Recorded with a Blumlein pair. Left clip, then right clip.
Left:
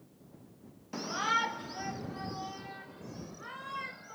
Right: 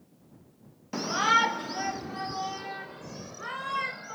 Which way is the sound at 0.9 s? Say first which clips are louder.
Right 7 dB; 20° right.